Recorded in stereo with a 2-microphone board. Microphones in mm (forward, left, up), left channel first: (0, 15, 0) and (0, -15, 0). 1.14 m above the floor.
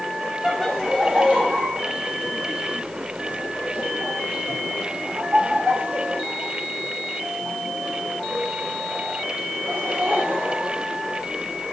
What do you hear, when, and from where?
0.4 s laughter: 15° right (ahead or behind), 1.5 m; by 10.8 s 80° right, 6.5 m